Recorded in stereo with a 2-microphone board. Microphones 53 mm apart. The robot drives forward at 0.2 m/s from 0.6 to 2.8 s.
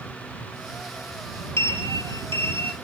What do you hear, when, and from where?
1.6 s a sliding door: 60° left (ahead or behind), 0.6 m; by 2.8 s 45° left (ahead or behind), 0.7 m